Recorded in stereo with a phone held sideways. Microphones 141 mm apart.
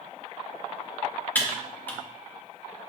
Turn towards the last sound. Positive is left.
turn(degrees=15)  # may be behind; listen again after turning